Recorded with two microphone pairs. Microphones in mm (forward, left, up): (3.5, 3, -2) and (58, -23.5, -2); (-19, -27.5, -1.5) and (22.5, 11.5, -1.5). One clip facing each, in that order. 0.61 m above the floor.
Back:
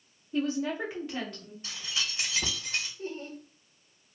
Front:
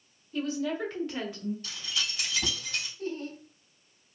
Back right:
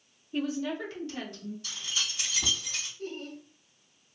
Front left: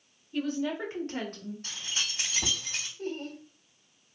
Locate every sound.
0.3 s a woman speaking: 175° left, 1.0 m; by 1.5 s 50° left, 1.5 m
1.6 s keys jangling: 95° left, 1.6 m
3.0 s laughter: 95° left, 1.6 m